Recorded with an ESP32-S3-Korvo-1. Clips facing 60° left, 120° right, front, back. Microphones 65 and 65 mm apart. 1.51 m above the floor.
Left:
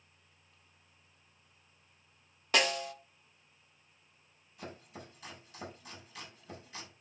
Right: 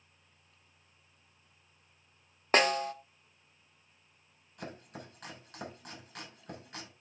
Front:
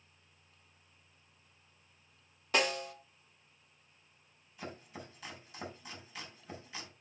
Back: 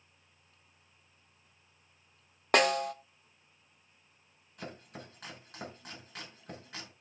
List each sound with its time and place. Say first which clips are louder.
2.5 s a snare drum: right 4 dB, back 6 dB; 165° right, 0.9 m
4.6 s chopping: right 2 dB, back 1 dB; 150° right, 6.5 m